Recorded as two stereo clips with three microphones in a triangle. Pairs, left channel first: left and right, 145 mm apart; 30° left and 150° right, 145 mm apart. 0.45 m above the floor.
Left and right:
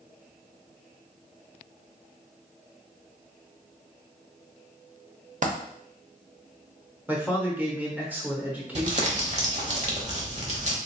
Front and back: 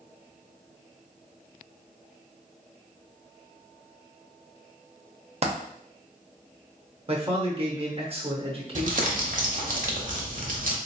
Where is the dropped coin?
115° right, 0.7 m.